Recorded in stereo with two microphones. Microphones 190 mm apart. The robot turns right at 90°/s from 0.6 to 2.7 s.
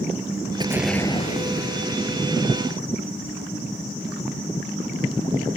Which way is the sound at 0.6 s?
25° right.